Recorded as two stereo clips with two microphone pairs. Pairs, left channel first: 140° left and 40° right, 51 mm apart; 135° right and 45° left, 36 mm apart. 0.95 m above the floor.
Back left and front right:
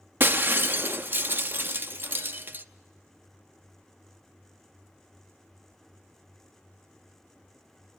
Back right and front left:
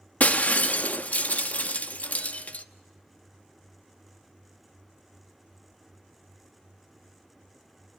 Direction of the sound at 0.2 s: 90° right.